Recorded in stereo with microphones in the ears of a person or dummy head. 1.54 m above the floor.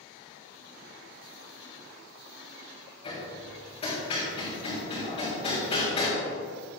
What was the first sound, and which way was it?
Hammering, 30° left (ahead or behind).